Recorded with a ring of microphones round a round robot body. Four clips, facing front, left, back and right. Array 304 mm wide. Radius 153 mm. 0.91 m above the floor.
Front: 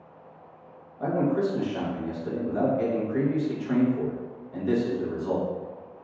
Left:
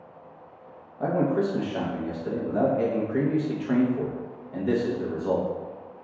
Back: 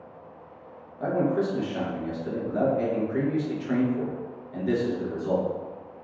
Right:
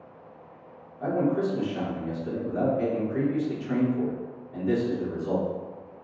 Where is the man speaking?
100° left, 0.9 m.